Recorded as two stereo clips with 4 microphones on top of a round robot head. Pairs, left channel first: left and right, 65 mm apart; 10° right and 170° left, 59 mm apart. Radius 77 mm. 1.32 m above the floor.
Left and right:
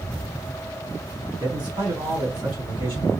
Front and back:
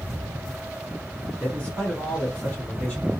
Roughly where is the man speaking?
Right.